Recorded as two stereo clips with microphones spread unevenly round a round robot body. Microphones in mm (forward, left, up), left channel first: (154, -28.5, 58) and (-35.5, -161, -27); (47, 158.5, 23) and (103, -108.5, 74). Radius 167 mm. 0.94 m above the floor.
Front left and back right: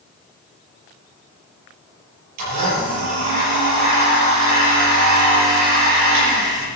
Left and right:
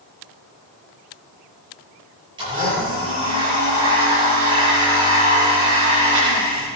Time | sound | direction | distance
2.4 | a blender | 155° right | 8 m